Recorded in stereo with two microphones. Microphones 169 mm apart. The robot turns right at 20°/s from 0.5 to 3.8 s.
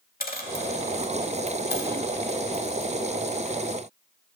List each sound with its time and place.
0.2 s a dropped coin: 60° left (ahead or behind), 0.9 m